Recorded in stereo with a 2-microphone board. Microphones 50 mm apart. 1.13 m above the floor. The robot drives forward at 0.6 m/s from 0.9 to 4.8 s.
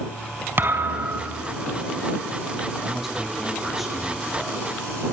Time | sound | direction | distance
0.6 | a thud | 45° right (ahead or behind) | 4 m
2.8 | a man speaking | 5° right (ahead or behind) | 8.5 m